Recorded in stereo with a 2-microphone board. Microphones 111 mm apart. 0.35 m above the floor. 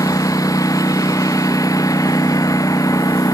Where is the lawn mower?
30° left (ahead or behind).